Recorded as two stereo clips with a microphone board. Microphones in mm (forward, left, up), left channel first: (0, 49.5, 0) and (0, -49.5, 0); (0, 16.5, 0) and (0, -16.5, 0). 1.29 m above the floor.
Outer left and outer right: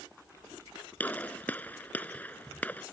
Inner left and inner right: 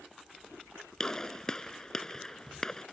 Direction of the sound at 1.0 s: 15° left (ahead or behind).